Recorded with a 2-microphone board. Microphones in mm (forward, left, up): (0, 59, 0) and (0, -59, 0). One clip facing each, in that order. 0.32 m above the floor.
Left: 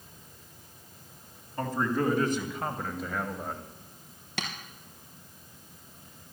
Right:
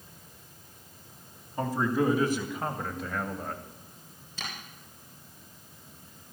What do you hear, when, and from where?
1.6 s a man speaking: 10° right (ahead or behind), 2.5 m; by 3.6 s 5° left (ahead or behind), 1.6 m
4.4 s tapping: 80° left, 3 m